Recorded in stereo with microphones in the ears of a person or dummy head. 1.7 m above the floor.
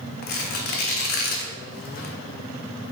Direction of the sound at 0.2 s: 50° left (ahead or behind).